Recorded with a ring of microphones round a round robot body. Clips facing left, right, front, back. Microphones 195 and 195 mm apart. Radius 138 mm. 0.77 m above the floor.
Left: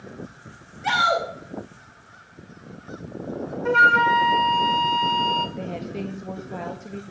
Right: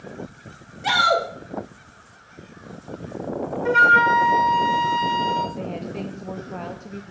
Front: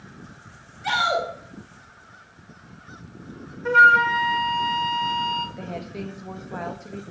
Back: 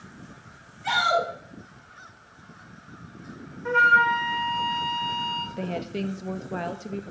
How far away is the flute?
About 1.3 m.